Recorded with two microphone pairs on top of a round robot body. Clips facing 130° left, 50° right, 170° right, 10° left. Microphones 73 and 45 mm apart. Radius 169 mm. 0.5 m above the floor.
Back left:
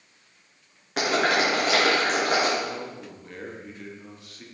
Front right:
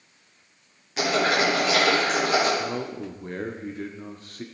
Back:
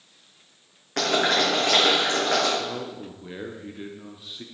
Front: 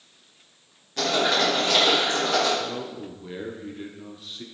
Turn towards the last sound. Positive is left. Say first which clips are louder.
# front right 3 dB, even
turn(degrees=-80)